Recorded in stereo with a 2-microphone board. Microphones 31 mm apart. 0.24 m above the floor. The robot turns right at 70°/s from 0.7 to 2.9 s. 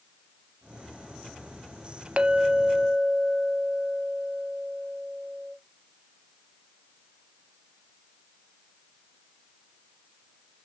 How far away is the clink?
About 0.9 m.